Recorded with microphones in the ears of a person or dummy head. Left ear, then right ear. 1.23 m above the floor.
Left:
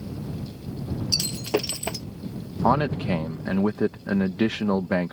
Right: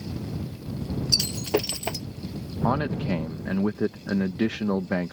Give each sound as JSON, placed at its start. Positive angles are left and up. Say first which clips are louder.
{"t": 1.1, "sound": "breaking glass", "louder": "right 1 dB", "side_deg": -5}
{"t": 2.6, "sound": "a man speaking", "louder": "left 4 dB", "side_deg": 20}